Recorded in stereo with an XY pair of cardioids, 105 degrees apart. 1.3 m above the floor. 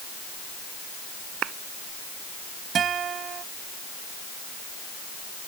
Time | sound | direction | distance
1.4 | a clap | 70° right | ?
2.8 | a guitar | 55° right | ?